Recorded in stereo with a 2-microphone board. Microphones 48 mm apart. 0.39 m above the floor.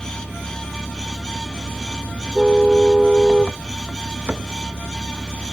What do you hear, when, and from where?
0.0 s an engine running: 30° right (ahead or behind)
2.4 s a car horn: 15° right (ahead or behind)
4.3 s a cupboard door: 40° right (ahead or behind)